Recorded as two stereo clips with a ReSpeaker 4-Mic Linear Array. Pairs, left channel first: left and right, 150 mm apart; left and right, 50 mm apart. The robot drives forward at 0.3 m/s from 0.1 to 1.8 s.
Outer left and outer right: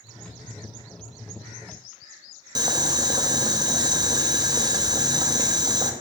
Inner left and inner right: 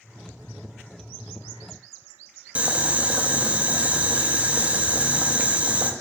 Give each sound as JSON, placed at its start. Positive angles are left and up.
{"t": 2.5, "sound": "boiling", "side_deg": -25, "distance_m": 0.5}